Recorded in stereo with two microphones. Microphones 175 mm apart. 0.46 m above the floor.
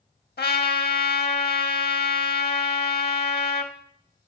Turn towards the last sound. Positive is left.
turn(degrees=65)  # may be behind; listen again after turning